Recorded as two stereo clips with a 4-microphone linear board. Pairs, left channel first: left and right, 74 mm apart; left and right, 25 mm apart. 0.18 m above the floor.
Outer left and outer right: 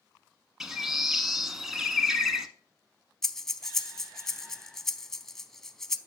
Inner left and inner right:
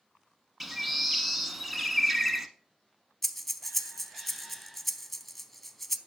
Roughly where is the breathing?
Centre.